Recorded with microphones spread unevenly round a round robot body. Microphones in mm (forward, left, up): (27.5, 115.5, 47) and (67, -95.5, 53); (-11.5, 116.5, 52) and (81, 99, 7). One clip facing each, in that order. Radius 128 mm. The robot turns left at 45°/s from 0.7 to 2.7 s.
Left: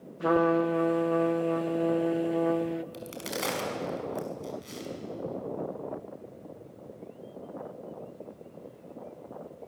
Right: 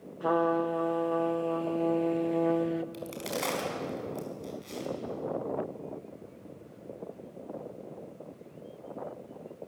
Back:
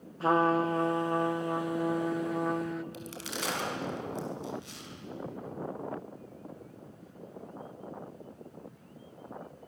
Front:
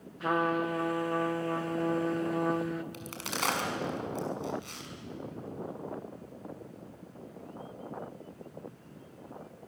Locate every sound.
0.2 s a trumpet: 100° left, 0.8 m; by 2.8 s 10° left, 0.8 m
2.9 s a crack: 15° left, 5.5 m